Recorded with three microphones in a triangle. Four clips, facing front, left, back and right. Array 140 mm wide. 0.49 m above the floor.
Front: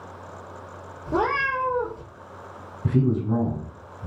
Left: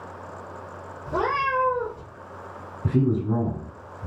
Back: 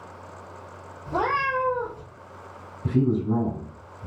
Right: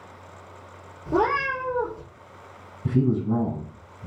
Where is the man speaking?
60° left, 1.4 m.